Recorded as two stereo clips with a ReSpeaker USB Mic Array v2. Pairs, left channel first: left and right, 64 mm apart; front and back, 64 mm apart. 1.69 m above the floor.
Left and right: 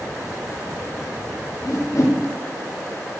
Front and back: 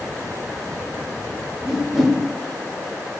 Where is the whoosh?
90° left, 0.6 m.